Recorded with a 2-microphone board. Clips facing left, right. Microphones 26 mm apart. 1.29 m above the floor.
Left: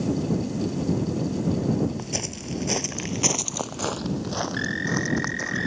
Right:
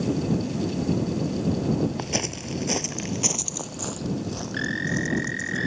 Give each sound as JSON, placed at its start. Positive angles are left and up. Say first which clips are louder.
{"t": 2.0, "sound": "footsteps", "louder": "right 3 dB", "side_deg": -25}